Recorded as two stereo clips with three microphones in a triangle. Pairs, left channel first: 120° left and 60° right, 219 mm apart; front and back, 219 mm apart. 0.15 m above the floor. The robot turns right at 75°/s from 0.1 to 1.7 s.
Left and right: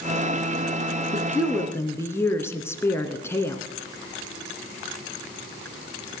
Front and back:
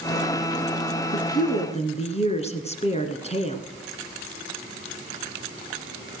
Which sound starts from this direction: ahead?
A woman speaking, at 1.1 s.